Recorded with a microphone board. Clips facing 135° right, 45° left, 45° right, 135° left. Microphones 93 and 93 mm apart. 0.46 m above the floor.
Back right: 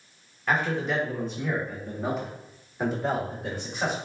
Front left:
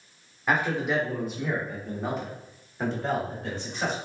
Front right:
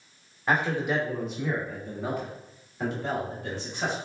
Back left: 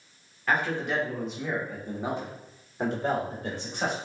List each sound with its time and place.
0.5 s a man speaking: 15° right, 1.0 m; by 4.0 s 150° left, 1.6 m